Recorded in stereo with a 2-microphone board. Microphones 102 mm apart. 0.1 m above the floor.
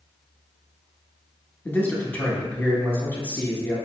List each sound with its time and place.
1.6 s a man speaking: 20° left (ahead or behind), 1.1 m